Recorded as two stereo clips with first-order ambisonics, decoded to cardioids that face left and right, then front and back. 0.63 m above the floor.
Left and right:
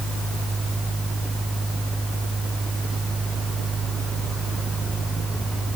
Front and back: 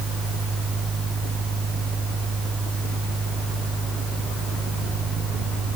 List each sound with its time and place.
Only background noise.